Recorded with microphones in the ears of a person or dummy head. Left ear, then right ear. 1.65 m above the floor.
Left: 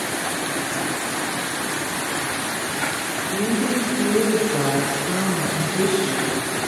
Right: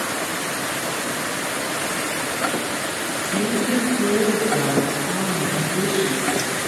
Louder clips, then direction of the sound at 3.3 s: Right 1 dB; 45° left (ahead or behind).